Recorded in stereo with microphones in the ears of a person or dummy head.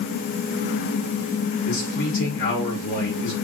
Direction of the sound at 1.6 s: 75° left (ahead or behind).